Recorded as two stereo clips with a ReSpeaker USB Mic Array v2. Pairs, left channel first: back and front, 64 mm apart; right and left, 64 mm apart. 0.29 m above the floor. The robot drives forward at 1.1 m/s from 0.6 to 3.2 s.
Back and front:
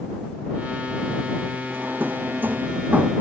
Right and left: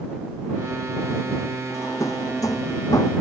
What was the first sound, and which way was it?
A drawer, 60° right.